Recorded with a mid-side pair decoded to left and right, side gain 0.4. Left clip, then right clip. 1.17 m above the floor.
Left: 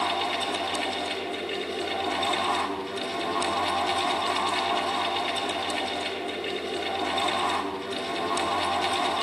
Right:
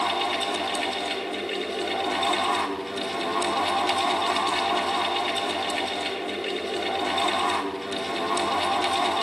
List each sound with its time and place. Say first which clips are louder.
0.0 s a fan: right 2 dB; 15° right, 4 m